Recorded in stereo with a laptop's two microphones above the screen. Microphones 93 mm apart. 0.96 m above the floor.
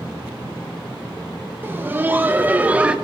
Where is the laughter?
20° right (ahead or behind), 1.3 m; by 3.0 s 10° right (ahead or behind), 0.8 m.